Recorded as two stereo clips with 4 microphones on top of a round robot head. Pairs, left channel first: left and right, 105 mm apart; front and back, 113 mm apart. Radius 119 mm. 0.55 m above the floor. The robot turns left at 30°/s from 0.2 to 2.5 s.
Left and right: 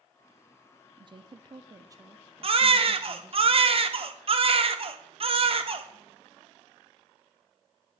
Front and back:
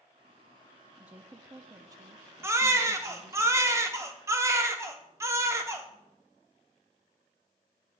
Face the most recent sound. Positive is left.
turn(degrees=-115)